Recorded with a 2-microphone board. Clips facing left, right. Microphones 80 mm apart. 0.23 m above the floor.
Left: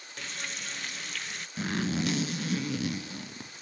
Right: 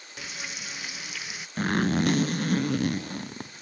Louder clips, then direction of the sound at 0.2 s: Right 1 dB; 5° right (ahead or behind).